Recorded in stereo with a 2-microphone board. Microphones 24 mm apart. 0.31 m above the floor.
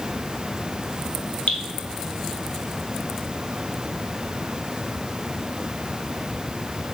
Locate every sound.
1.5 s dripping: 85° left, 1.3 m